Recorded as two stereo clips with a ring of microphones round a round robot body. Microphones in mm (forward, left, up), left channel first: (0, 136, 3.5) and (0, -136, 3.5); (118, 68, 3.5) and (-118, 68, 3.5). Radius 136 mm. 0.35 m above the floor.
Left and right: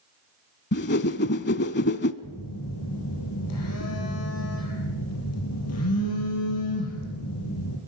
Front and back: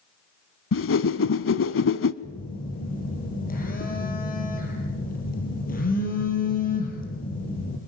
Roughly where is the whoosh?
Ahead left.